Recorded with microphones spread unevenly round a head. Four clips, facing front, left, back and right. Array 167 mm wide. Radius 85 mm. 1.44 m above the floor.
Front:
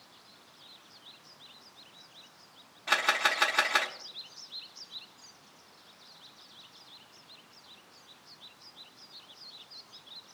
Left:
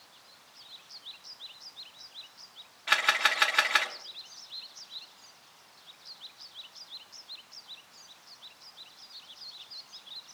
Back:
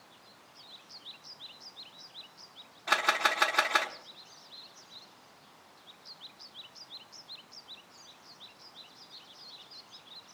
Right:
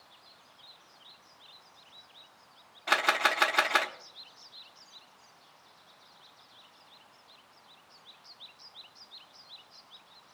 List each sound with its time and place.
2.9 s a camera shutter: 115° right, 0.9 m